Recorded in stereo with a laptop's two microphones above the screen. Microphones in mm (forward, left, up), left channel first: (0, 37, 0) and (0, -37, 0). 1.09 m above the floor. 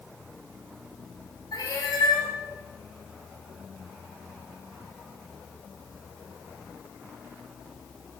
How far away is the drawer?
I don't hear a drawer.